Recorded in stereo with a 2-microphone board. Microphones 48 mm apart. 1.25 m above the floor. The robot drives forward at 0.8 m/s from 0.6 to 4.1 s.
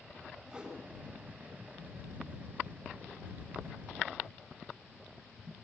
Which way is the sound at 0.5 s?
15° right (ahead or behind).